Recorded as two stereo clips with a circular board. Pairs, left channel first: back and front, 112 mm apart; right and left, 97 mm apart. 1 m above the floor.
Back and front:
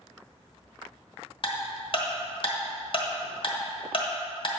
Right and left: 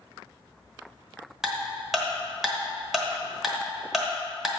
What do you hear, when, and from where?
1.4 s ticking: 175° left, 1.1 m